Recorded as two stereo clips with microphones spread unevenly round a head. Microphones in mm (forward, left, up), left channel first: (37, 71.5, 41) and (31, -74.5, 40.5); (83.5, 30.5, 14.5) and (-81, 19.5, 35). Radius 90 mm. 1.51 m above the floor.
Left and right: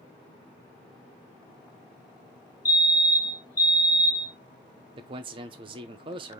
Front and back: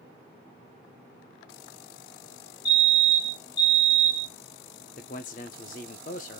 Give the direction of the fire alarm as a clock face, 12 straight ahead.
11 o'clock.